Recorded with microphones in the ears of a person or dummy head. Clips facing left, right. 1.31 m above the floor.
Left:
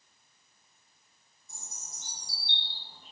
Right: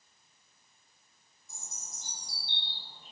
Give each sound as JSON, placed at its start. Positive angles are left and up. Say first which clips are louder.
{"t": 1.5, "sound": "a bird", "louder": "even", "side_deg": 0, "distance_m": 1.5}